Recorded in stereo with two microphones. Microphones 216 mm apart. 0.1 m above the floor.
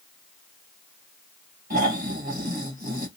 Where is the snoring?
40° right (ahead or behind), 2 m.